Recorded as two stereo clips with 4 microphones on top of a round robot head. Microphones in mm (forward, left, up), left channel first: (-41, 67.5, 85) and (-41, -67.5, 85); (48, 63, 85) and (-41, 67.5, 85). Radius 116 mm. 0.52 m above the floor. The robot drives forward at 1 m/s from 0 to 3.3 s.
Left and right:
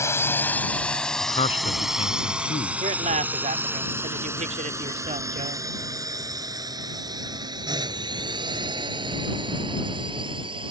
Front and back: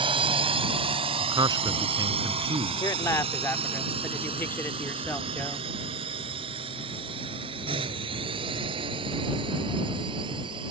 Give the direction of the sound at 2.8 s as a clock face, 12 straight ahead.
2 o'clock.